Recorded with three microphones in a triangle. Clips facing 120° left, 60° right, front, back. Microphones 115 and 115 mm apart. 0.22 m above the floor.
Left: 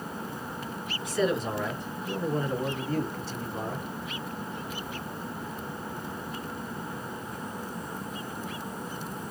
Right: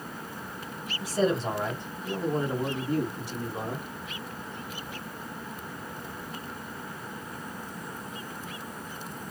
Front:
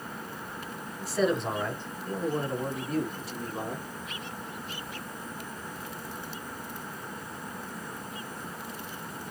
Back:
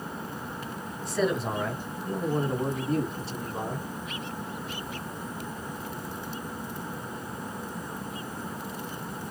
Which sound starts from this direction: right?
A man speaking, at 1.0 s.